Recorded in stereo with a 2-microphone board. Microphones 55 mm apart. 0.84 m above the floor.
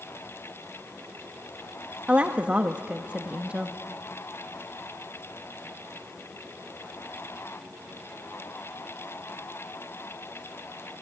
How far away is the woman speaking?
About 0.7 m.